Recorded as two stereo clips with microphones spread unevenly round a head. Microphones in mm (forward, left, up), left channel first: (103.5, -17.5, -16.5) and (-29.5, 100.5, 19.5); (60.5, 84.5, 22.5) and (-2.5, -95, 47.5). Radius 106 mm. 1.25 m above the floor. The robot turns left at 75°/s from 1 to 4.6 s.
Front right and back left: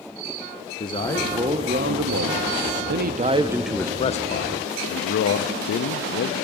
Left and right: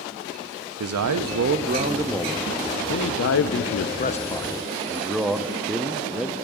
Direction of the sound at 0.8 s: 110° right.